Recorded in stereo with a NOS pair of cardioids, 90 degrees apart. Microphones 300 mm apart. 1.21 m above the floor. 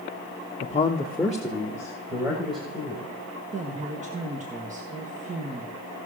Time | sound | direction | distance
0.6 | a man speaking | 30° left | 1.0 m
3.5 | a woman speaking | 25° right | 1.8 m